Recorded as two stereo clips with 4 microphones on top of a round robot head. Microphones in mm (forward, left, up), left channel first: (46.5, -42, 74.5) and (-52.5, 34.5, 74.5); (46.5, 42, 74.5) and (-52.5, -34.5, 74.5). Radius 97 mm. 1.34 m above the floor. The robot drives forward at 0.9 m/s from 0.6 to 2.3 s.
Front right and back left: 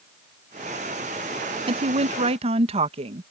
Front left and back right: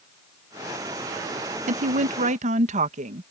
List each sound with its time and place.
1.7 s a woman speaking: 170° right; by 3.2 s 175° right